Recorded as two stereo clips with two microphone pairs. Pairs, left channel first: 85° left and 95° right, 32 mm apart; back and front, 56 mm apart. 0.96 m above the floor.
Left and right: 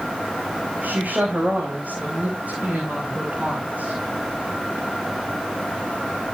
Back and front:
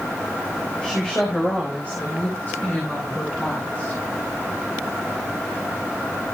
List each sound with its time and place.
0.8 s a woman speaking: 110° right, 4.5 m; by 4.0 s 140° right, 8 m